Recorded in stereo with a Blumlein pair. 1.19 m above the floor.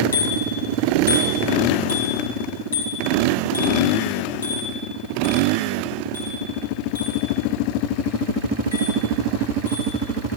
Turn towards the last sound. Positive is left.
turn(degrees=75)